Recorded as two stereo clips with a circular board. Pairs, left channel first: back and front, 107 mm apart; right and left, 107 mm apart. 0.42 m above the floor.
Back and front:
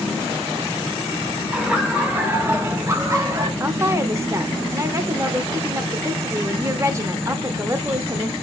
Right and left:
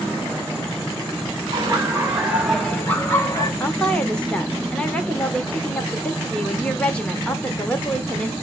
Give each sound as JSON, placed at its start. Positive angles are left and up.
{"t": 1.5, "sound": "laughter", "azimuth_deg": 85, "distance_m": 1.4}
{"t": 3.6, "sound": "a woman speaking", "azimuth_deg": -20, "distance_m": 0.8}